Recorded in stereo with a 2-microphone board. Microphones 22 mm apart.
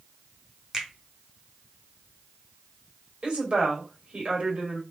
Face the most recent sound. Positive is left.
turn(degrees=-60)  # may be behind; listen again after turning